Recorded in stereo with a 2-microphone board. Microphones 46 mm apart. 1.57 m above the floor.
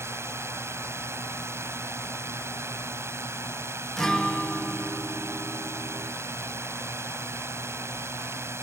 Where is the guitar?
15° left (ahead or behind).